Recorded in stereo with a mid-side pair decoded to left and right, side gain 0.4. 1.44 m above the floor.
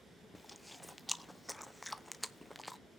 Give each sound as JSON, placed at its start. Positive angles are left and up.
{"t": 0.3, "sound": "chewing", "azimuth_deg": 5, "distance_m": 0.7}